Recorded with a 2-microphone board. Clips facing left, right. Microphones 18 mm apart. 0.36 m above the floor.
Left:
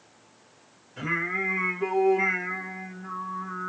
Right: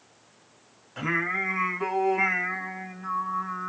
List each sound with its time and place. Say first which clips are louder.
1.0 s singing: right 1 dB; 50° right (ahead or behind), 1.6 m